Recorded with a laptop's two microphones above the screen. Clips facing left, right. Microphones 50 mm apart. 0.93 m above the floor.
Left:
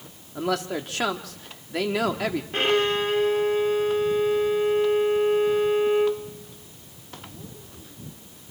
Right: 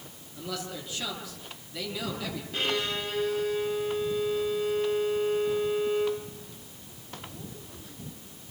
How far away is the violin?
About 2.5 m.